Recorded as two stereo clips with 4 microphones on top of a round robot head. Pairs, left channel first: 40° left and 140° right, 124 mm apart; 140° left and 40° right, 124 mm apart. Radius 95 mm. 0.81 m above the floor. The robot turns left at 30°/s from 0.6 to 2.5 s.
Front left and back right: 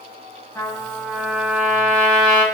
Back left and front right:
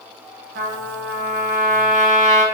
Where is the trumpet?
30° right, 1.1 m; by 2.5 s 85° right, 1.1 m.